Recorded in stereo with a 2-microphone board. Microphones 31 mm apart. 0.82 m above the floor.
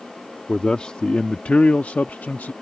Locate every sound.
0.5 s a man speaking: 30° left (ahead or behind); by 2.5 s 70° left (ahead or behind)